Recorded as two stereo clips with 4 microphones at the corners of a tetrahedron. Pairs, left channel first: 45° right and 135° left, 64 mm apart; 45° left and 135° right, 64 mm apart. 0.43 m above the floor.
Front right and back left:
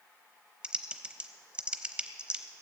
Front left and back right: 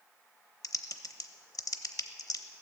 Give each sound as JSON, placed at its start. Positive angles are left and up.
{"t": 0.6, "sound": "typing on a keyboard", "azimuth_deg": 65, "distance_m": 0.7}